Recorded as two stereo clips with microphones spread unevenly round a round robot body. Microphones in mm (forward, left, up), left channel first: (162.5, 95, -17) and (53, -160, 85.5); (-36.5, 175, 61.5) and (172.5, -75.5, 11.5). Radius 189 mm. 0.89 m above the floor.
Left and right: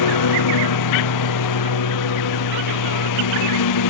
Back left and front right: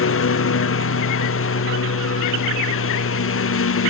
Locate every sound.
0.0 s a lawn mower: 80° left